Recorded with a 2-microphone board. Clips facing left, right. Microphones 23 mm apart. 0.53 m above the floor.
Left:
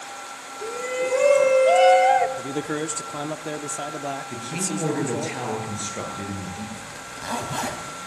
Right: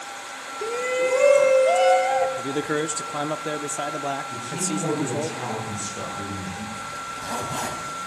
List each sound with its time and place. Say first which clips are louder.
0.6 s a shout: right 3 dB; 25° right (ahead or behind), 0.9 m; by 2.3 s 30° left (ahead or behind), 1.0 m
2.4 s a man speaking: right 2 dB; 15° right (ahead or behind), 0.7 m
4.3 s a man speaking: right 1 dB; 60° left (ahead or behind), 9 m
6.9 s a zipper: left 1 dB; 20° left (ahead or behind), 3 m